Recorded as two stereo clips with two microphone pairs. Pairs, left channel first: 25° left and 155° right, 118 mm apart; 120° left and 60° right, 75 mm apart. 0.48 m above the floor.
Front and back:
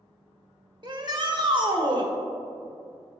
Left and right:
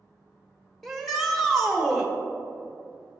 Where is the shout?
155° right, 1.0 m.